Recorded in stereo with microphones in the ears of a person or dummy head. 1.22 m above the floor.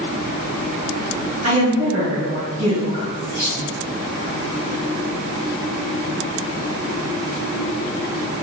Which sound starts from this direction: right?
A woman speaking, at 1.4 s.